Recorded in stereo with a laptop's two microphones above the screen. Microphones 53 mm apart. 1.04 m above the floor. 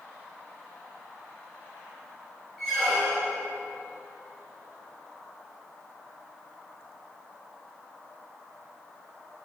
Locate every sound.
2.6 s a squeak: centre (ahead or behind), 1.4 m